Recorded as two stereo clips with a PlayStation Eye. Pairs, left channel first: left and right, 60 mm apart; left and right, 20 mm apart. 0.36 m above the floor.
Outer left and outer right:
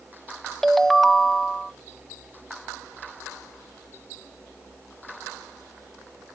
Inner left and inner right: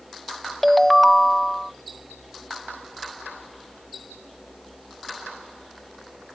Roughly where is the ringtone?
Centre.